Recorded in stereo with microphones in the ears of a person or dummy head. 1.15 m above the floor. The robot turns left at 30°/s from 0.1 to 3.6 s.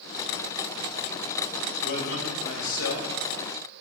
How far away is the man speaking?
About 4 m.